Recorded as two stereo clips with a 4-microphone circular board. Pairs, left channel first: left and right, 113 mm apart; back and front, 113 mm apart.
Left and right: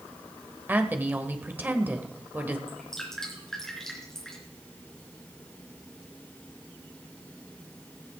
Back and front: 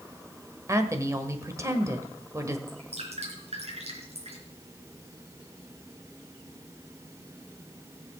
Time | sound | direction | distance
0.7 | a woman speaking | 30° right | 1.5 m
2.7 | dripping | 5° left | 4 m